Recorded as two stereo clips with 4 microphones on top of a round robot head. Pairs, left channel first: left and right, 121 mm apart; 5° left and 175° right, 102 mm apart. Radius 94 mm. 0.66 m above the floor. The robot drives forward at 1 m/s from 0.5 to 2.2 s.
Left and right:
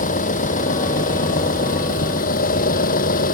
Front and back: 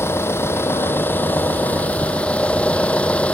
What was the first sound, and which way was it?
An engine running, 75° left.